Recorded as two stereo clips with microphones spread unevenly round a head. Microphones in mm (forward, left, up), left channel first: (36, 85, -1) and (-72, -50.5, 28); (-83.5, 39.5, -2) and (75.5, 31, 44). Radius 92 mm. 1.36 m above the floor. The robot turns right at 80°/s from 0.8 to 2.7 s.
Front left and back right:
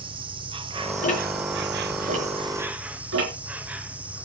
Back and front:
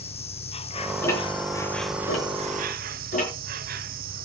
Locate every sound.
0.0 s an insect: 170° left, 1.2 m; by 4.2 s 40° right, 1.2 m
1.0 s ticking: 95° left, 5.5 m; by 3.3 s 130° right, 5.5 m